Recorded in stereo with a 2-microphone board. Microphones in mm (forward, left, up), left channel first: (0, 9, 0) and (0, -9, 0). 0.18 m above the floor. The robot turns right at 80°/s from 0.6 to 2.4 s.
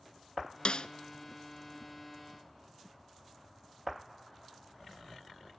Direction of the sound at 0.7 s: 65° left (ahead or behind).